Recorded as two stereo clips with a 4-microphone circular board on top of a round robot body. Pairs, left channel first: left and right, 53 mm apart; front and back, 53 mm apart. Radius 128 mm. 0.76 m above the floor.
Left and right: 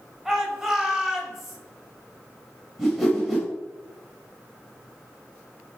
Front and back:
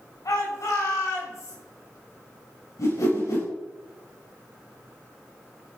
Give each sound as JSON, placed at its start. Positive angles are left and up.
{"t": 0.2, "sound": "a shout", "azimuth_deg": -5, "distance_m": 5.5}
{"t": 2.8, "sound": "a whoosh", "azimuth_deg": 0, "distance_m": 7.5}